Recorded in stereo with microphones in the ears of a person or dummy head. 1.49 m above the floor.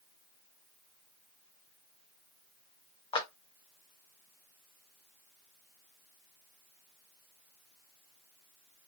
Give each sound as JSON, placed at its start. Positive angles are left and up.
{"t": 3.1, "sound": "a clap", "side_deg": 30, "distance_m": 0.6}